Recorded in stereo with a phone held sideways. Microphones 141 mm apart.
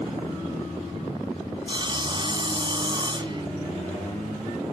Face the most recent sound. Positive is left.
turn(degrees=-35)  # may be behind; listen again after turning